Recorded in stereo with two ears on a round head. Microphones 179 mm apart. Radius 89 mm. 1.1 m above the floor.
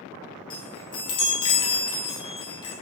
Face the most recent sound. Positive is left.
turn(degrees=25)  # may be behind; listen again after turning